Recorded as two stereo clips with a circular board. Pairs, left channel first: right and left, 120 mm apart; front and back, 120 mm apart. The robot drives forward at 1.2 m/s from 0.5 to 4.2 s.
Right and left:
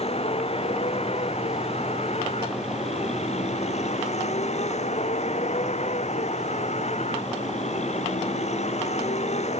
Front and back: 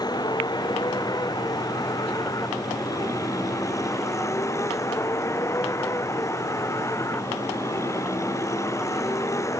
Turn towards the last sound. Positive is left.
turn(degrees=-65)